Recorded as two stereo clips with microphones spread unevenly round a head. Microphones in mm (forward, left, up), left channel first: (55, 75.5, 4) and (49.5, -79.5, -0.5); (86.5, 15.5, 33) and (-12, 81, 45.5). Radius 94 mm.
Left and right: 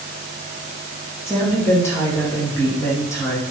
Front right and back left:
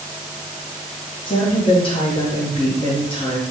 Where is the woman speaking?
15° left, 1.4 m.